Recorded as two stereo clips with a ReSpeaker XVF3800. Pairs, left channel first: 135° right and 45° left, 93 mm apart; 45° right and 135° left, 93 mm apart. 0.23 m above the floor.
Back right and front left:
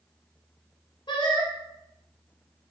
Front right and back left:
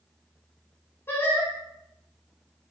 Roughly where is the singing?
Right.